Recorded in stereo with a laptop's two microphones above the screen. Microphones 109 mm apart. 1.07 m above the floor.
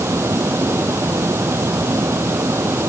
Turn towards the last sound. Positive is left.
turn(degrees=-25)  # may be behind; listen again after turning